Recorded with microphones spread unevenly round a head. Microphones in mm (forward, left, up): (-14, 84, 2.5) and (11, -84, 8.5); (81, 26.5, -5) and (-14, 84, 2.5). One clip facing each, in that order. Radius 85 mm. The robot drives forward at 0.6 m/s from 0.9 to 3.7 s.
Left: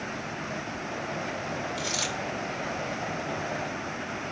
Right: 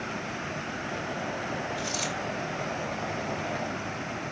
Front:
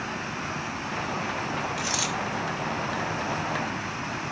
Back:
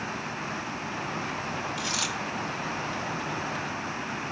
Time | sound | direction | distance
1.8 | a dropped coin | 85° left | 7 m